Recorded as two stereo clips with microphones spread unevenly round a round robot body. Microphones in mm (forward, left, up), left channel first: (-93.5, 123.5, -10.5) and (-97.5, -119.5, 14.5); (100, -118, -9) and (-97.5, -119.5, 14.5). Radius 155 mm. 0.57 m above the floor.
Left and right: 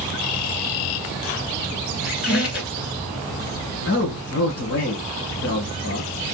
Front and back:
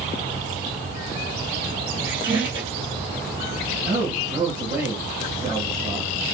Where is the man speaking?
105° left, 1.7 m.